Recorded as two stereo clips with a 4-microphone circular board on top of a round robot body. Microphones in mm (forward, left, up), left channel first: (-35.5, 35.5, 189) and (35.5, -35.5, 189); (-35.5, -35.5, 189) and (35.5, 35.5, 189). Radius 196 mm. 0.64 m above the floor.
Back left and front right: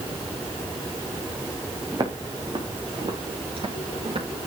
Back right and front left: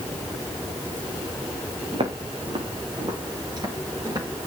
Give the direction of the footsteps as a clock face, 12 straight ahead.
12 o'clock.